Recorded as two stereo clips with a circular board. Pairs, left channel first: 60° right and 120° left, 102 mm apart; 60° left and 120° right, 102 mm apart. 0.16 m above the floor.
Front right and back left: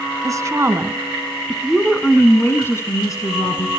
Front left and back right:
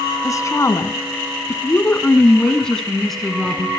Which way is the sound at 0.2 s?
95° left.